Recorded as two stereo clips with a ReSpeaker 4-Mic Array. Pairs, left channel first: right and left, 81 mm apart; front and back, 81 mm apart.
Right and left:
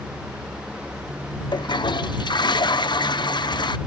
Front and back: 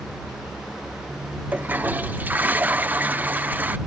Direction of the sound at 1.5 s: 110° right.